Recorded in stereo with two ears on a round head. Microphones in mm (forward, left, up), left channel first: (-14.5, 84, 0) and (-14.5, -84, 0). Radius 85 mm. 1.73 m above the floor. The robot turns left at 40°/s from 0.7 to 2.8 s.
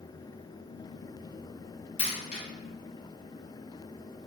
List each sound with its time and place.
2.0 s a dropped coin: 40° left (ahead or behind), 1.5 m